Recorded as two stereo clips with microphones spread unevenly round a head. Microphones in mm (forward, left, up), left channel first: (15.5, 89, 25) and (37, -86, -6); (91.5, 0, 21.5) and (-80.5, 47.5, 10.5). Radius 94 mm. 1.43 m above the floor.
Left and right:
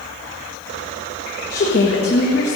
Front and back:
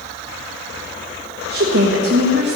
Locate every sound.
1.5 s a woman speaking: 135° left, 1.7 m